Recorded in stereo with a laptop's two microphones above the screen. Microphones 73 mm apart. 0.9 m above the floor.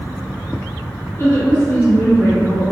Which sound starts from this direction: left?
A woman speaking, at 1.2 s.